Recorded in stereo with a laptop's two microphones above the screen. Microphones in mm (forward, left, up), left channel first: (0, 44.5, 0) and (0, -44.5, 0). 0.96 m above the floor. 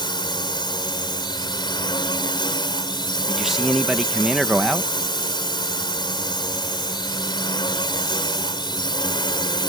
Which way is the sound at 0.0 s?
55° left (ahead or behind).